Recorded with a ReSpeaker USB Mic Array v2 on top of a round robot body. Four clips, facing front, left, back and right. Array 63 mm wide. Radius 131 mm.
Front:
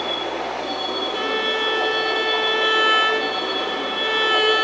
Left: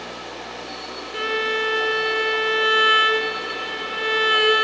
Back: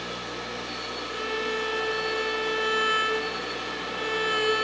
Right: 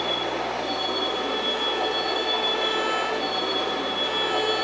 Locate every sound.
0.0 s a vehicle: 30° right
1.1 s a violin: 60° left